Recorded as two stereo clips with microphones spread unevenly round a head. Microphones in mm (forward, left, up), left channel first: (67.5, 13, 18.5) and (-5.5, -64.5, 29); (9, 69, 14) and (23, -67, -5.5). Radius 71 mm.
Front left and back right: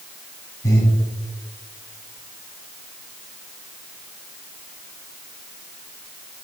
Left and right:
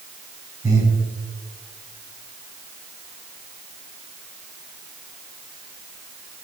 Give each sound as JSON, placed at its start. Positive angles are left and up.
{"t": 0.6, "sound": "breathing", "azimuth_deg": -15, "distance_m": 2.0}